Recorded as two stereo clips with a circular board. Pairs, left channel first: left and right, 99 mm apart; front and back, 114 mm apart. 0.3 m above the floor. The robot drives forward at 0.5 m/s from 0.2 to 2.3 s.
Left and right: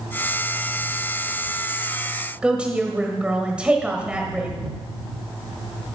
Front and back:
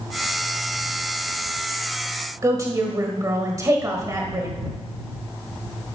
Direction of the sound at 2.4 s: 160° right.